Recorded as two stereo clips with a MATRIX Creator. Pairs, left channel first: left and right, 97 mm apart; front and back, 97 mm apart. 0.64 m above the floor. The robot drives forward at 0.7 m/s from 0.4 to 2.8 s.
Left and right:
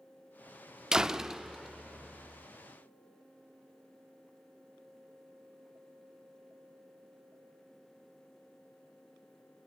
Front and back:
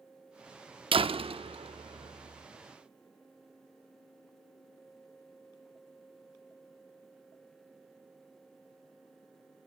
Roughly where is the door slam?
Behind.